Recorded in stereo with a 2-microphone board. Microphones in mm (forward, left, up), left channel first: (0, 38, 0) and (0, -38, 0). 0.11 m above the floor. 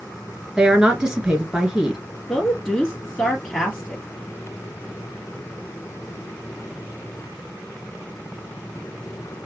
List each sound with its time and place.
0.6 s a woman speaking: 10° right (ahead or behind), 1.8 m
2.3 s a woman speaking: 5° left (ahead or behind), 2 m